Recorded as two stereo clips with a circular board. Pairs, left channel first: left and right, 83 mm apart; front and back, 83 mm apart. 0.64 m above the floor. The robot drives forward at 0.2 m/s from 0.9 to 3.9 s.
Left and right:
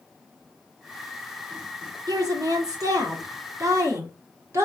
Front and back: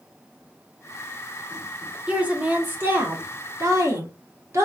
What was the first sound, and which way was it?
A woman speaking, 110° right.